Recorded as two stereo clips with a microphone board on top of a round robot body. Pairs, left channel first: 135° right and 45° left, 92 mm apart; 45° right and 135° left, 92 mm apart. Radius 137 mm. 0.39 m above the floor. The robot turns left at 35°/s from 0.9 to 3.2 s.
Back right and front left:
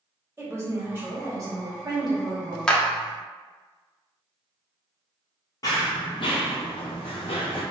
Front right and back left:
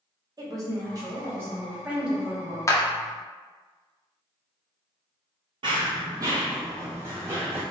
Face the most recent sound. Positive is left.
turn(degrees=-155)